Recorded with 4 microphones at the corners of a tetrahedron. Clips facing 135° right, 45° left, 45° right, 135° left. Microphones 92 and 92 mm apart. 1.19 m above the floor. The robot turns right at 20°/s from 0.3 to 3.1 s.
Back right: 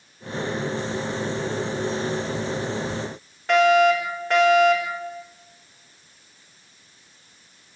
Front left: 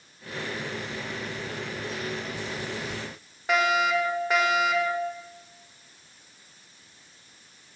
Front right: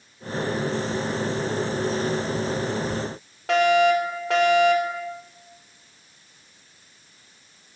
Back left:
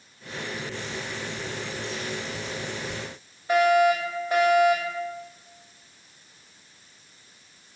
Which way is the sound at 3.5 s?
35° right.